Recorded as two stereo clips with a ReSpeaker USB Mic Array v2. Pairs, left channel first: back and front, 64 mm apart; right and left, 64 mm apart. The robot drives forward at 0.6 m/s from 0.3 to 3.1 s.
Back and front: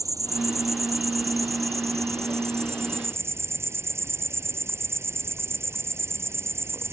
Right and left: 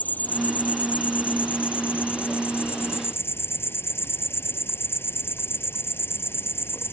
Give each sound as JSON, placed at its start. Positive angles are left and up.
{"t": 0.0, "sound": "an insect", "azimuth_deg": -25}